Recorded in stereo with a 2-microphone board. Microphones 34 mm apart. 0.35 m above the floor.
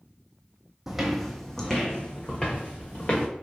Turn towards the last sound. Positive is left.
turn(degrees=40)  # may be behind; listen again after turning